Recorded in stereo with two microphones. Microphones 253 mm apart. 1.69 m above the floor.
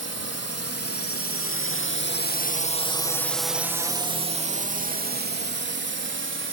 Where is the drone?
75° left (ahead or behind); by 6.5 s 50° right (ahead or behind).